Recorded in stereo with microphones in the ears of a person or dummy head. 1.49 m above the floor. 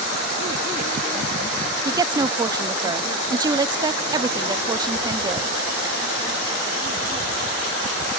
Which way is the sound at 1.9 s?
15° right (ahead or behind).